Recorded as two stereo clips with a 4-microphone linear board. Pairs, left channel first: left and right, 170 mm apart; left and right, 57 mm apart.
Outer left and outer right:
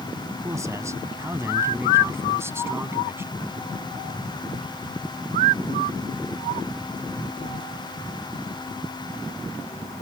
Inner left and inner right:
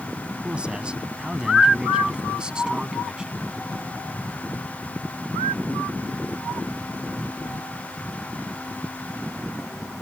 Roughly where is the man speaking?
Centre.